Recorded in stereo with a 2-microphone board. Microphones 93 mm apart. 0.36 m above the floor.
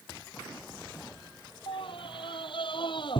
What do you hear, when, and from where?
1.7 s a scream: 70° left (ahead or behind); by 3.2 s 60° left (ahead or behind)